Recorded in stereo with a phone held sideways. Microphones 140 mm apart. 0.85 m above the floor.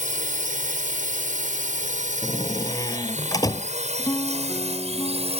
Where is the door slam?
25° left (ahead or behind).